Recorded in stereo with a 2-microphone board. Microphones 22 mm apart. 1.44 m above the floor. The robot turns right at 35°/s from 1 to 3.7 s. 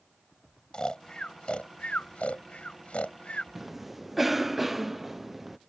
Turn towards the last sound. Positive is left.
turn(degrees=-5)  # may be behind; listen again after turning